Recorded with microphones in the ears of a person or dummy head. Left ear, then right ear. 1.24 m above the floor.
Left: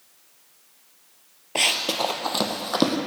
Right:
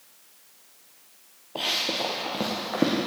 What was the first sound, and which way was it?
Running footsteps, 45° left (ahead or behind).